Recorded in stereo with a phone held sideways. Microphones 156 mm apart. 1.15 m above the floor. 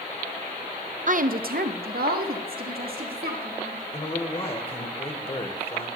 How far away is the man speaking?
About 1.3 m.